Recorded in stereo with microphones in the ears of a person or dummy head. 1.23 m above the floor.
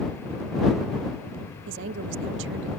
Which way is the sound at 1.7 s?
75° right (ahead or behind).